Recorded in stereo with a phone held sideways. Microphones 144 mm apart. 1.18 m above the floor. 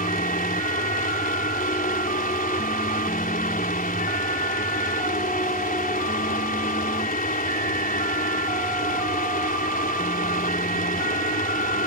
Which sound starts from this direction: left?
A fan, at 0.0 s.